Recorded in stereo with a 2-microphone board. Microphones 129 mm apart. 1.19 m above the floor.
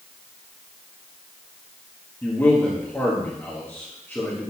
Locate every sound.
2.2 s a man speaking: 15° left (ahead or behind), 1.3 m